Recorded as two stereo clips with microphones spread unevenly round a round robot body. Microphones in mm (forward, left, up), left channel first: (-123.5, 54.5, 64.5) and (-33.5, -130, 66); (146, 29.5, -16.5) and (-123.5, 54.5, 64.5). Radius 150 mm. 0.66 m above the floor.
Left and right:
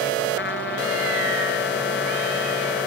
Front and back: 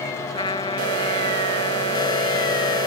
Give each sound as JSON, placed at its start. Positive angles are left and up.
{"t": 0.3, "sound": "a trumpet", "azimuth_deg": 70}